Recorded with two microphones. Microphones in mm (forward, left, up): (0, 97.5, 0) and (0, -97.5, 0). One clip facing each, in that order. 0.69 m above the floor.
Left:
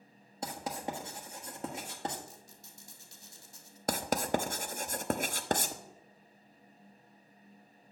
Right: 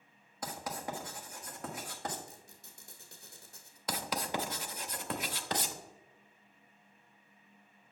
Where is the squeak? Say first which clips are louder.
Left 1 dB; 60° right (ahead or behind), 1.5 m.